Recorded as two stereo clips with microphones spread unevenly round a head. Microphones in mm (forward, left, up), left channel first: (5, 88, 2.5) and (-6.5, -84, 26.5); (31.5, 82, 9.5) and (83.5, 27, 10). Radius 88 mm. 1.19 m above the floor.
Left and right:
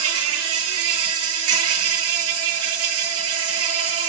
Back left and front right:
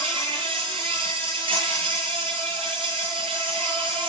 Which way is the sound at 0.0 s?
95° right.